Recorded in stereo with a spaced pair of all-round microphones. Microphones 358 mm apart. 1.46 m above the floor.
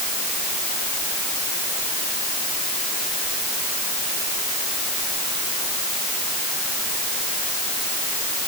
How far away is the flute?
No flute in this recording.